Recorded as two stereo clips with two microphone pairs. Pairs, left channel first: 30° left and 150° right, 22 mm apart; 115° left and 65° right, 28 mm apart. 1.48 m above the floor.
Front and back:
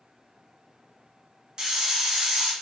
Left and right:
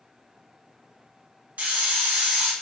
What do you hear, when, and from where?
1.6 s a hiss: 90° right, 1.0 m